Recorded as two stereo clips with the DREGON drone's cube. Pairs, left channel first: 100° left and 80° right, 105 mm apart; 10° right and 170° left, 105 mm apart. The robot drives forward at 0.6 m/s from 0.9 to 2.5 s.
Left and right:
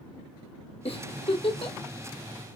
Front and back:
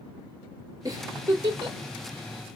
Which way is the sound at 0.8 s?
115° left.